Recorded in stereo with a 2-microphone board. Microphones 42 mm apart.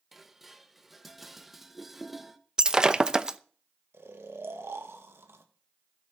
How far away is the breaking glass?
About 0.7 m.